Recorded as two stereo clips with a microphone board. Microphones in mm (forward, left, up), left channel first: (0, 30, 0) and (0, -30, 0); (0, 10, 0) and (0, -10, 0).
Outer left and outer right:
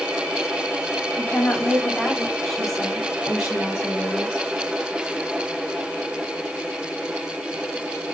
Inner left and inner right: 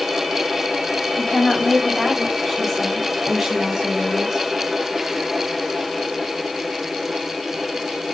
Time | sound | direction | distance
1.2 | a woman speaking | 30° left (ahead or behind) | 3.5 m